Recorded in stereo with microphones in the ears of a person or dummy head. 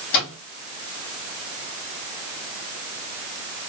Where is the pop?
I don't hear a pop.